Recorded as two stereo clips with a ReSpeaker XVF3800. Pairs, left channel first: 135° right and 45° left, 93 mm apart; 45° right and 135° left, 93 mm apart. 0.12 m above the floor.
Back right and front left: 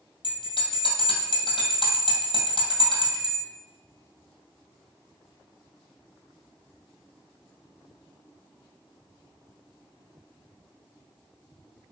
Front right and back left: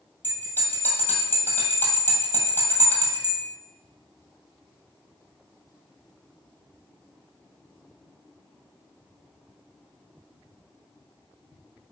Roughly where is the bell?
Behind right.